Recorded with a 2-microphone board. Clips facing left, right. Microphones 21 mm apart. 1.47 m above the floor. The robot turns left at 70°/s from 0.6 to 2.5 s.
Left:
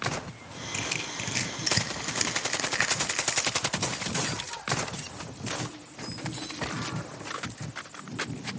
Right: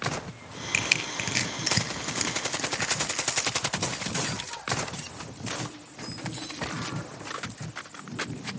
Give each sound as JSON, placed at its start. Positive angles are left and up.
{"t": 0.7, "sound": "crushing", "side_deg": -75, "distance_m": 4.5}